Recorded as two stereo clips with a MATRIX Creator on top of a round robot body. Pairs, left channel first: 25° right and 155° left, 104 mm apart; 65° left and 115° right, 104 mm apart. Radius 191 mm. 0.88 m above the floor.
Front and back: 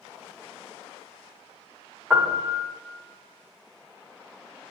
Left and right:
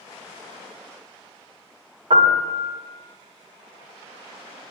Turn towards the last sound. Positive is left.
turn(degrees=-130)